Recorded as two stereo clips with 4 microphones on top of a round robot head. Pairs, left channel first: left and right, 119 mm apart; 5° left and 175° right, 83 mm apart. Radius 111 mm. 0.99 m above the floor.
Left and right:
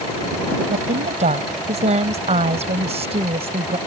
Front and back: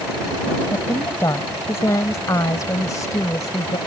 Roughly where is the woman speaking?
Ahead right.